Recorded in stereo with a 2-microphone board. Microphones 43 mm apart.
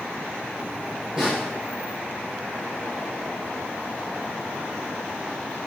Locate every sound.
1.2 s a snare drum: 10° right (ahead or behind), 4 m